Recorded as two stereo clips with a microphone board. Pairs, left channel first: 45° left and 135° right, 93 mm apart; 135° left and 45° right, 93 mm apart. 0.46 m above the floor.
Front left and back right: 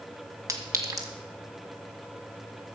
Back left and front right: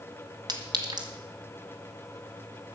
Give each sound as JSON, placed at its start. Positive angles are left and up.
{"t": 0.5, "sound": "a clink", "azimuth_deg": -80, "distance_m": 1.8}